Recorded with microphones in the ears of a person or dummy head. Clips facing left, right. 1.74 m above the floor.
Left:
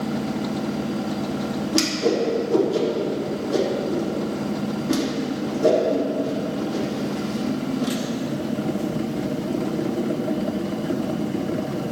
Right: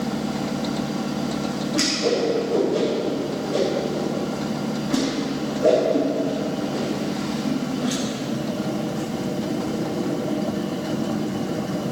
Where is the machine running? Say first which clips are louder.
Even; 30° left (ahead or behind), 1.7 m.